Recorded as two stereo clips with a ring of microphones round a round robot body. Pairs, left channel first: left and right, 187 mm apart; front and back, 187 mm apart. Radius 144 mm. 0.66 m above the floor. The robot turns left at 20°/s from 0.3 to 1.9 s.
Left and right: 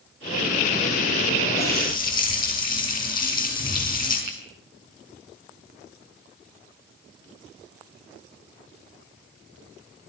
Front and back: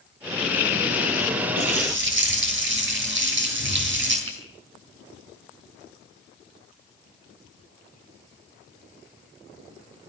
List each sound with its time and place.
1.6 s a running tap: 170° left, 9.5 m; by 4.2 s 165° left, 9.5 m
4.3 s a finger snap: 140° right, 6 m